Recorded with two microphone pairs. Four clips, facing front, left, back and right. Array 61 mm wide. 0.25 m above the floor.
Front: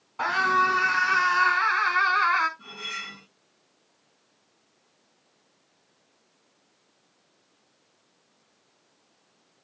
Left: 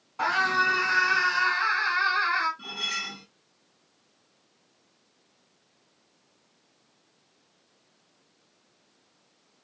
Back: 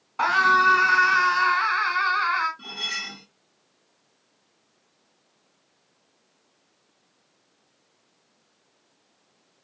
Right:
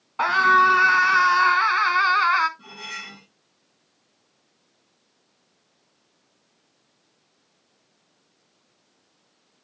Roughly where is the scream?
Behind right.